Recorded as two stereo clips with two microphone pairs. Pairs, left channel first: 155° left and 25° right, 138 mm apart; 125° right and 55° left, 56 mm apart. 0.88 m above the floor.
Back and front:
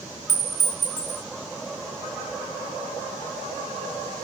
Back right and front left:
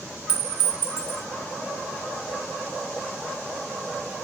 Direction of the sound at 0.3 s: 125° left.